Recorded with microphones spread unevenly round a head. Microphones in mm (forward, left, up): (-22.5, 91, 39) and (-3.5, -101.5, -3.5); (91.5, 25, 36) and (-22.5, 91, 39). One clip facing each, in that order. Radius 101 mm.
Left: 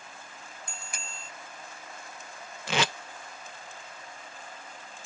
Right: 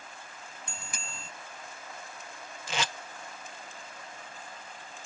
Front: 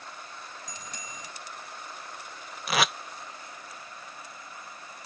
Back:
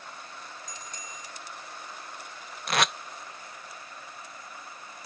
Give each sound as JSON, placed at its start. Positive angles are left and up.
{"t": 0.7, "sound": "a bicycle bell", "azimuth_deg": -80}
{"t": 2.7, "sound": "tape being pulled", "azimuth_deg": 60}